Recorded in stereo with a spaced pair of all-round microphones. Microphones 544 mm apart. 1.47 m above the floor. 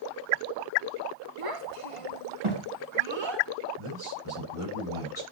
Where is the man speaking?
65° left (ahead or behind), 5.5 m.